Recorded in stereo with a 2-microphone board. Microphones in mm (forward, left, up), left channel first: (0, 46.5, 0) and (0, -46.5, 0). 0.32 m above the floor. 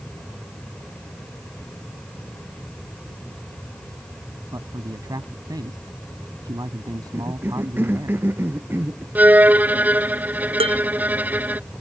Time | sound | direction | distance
4.5 | a man speaking | 40° right (ahead or behind) | ?
7.1 | a cough | 20° right (ahead or behind) | ?
9.2 | a violin | 15° right (ahead or behind) | ?
10.6 | dishes clattering | 80° right | ?